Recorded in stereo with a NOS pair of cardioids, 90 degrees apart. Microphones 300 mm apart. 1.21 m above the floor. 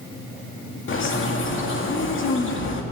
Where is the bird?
40° left, 2 m.